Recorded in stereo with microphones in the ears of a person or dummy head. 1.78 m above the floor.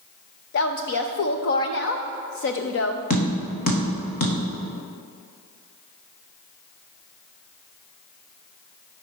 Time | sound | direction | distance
0.5 | a woman speaking | 45° left (ahead or behind) | 0.5 m
3.1 | tapping | 45° left (ahead or behind) | 1.6 m